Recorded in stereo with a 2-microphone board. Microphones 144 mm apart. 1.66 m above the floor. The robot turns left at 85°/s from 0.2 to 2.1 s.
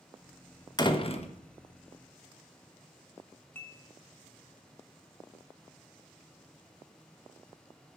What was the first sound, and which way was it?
A door slam, 140° left.